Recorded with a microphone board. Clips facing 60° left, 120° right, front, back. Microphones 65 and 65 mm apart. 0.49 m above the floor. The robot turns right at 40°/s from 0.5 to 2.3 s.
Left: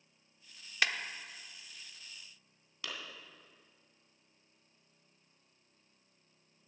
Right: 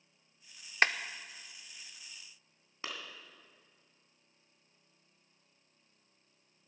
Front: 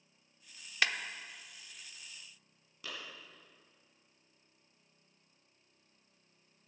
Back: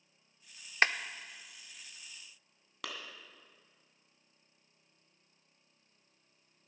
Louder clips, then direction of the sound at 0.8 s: Right 4 dB, back 4 dB; 150° right.